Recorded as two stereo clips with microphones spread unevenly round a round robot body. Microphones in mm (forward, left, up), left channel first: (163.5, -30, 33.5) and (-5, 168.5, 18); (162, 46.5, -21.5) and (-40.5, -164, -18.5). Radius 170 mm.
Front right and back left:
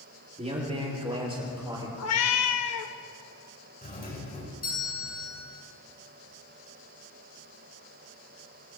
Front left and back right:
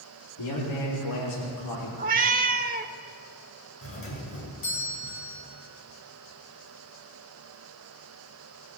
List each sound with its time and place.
0.4 s a man speaking: 65° left, 6.5 m; by 1.9 s 55° left, 5.5 m
2.0 s a cat meowing: 75° right, 0.6 m
3.8 s a doorbell: 5° left, 5.5 m